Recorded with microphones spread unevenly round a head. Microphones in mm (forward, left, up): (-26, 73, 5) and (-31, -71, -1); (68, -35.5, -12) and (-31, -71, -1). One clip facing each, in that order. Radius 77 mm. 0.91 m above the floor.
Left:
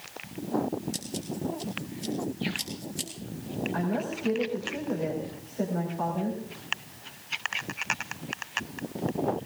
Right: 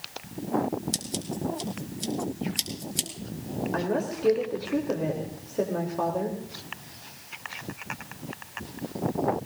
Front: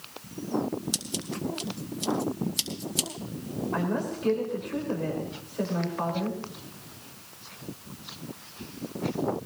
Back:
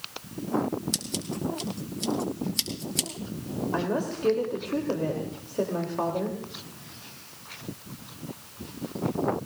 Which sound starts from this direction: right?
A woman speaking, at 3.7 s.